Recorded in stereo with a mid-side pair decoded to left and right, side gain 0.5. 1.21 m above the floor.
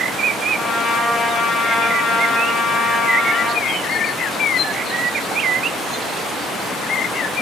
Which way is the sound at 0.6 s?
40° left.